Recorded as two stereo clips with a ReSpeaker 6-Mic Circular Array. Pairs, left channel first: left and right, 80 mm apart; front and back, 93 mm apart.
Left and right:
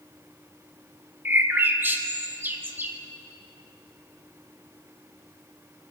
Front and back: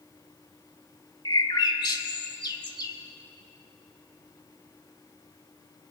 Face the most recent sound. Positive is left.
turn(degrees=-30)